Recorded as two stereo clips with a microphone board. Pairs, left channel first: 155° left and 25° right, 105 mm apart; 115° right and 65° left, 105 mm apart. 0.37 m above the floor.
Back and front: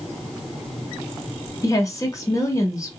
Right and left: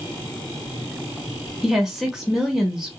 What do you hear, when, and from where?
1.6 s a woman speaking: 150° left, 0.9 m